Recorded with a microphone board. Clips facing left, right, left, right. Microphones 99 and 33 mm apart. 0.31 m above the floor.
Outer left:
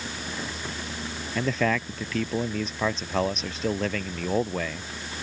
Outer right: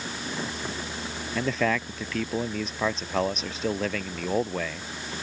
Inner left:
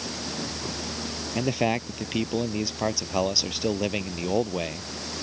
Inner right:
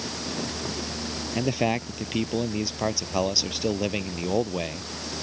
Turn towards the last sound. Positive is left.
turn(degrees=0)  # may be behind; listen again after turning